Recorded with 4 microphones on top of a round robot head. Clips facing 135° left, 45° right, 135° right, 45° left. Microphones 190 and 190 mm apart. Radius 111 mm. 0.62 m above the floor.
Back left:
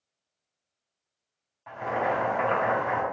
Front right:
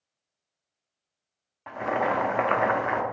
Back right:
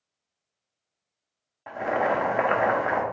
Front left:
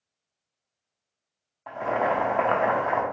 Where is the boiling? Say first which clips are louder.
Front right 2 dB, even; 65° right, 0.6 m.